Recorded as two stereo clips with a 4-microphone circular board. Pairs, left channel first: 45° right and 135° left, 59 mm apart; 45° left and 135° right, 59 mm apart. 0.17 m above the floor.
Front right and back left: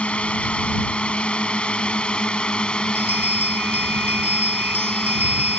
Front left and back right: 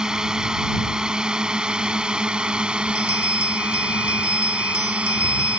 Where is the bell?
80° left.